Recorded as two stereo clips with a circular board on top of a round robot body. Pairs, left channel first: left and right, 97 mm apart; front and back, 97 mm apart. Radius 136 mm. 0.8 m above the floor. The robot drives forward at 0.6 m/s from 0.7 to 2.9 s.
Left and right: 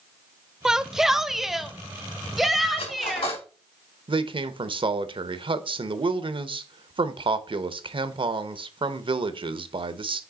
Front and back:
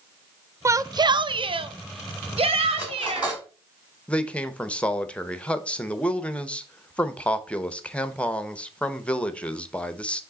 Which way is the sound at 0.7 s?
170° right.